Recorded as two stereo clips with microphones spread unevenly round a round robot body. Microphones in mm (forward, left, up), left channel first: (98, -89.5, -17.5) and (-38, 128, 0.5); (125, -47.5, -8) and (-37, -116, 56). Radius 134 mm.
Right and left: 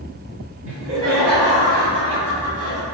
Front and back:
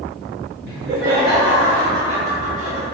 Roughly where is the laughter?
Behind.